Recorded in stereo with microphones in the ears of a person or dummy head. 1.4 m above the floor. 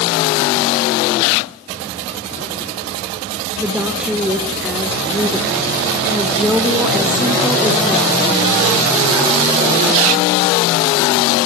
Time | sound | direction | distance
3.6 | a woman speaking | 5° left (ahead or behind) | 0.8 m